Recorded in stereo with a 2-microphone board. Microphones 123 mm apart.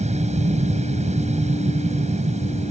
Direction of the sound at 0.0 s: 60° right (ahead or behind).